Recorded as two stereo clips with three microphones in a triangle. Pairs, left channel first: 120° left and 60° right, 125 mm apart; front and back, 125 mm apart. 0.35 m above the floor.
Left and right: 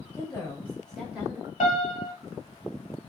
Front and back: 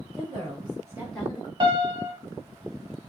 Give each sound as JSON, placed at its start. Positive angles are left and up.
{"t": 0.1, "sound": "a woman speaking", "azimuth_deg": 180, "distance_m": 1.5}
{"t": 1.6, "sound": "a piano", "azimuth_deg": 130, "distance_m": 0.6}